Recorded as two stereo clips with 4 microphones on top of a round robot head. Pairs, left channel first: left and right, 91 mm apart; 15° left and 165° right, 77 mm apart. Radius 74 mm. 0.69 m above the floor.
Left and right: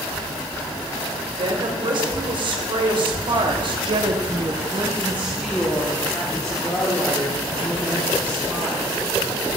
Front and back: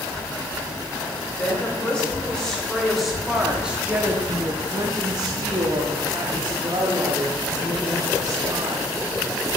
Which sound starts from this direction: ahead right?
A woman speaking, at 1.4 s.